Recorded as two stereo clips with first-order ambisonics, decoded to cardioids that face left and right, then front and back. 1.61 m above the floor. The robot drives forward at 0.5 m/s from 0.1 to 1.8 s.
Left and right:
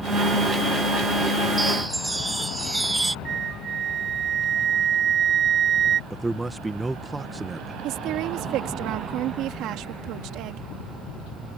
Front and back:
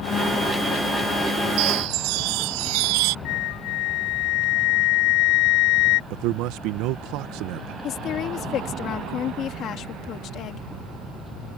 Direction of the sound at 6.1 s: 170° right.